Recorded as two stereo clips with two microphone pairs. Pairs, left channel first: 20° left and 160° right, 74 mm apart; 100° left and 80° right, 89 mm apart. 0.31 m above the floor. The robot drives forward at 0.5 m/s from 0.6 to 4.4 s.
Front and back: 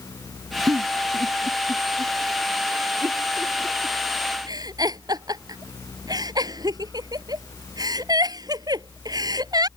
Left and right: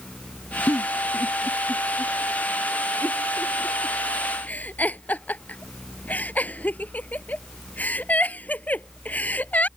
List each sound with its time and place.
0.7 s a giggle: 155° left; by 9.7 s 170° left